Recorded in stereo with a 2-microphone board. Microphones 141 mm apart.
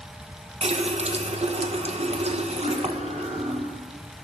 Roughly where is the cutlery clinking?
Right.